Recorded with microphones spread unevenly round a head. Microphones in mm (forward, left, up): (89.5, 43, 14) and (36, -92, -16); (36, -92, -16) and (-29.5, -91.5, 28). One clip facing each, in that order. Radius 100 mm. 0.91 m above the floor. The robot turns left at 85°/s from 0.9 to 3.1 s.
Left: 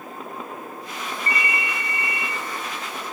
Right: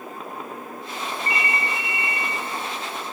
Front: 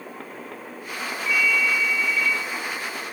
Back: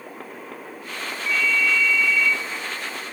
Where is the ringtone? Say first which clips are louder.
Even, even; 20° left, 0.9 m; by 2.4 s 75° right, 0.9 m.